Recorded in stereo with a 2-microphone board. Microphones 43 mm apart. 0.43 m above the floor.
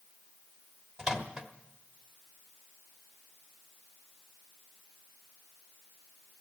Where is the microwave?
15° right (ahead or behind), 1.2 m.